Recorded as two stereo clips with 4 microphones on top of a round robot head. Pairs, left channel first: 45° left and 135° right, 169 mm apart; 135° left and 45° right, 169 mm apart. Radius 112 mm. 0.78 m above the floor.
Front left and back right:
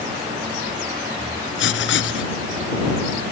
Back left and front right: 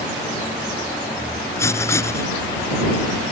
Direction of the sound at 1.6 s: 55° left.